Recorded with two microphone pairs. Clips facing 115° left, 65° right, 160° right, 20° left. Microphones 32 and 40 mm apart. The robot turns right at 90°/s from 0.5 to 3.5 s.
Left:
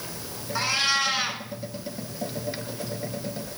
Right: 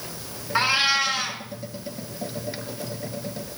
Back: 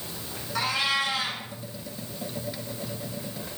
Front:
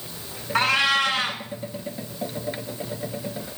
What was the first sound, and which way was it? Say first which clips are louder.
A cat meowing: right 4 dB, front 6 dB; 15° right.